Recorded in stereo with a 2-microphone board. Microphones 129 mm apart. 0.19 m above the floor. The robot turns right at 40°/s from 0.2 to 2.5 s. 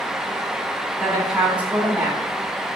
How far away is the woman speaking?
About 1.0 m.